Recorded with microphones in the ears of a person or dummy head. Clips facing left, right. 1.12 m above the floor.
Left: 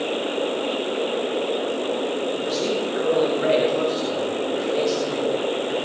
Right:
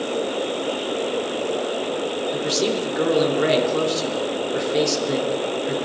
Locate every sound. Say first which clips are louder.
2.3 s a man speaking: right 1 dB; 60° right (ahead or behind), 3.5 m